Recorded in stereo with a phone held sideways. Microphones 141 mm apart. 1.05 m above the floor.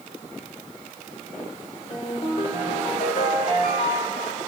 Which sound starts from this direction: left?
A ringtone, at 1.9 s.